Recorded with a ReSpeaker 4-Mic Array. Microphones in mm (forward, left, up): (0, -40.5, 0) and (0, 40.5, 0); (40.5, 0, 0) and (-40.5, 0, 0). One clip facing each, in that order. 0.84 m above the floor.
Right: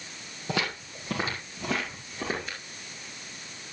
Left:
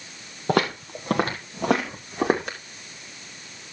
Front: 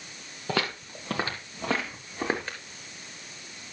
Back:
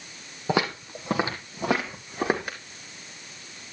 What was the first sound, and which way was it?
Footsteps, 115° left.